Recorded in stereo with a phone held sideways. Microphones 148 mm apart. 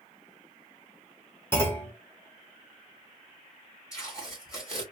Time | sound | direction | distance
1.5 | a clunk | 15° left (ahead or behind) | 1.5 m
3.9 | tape being pulled | 25° left (ahead or behind) | 2.5 m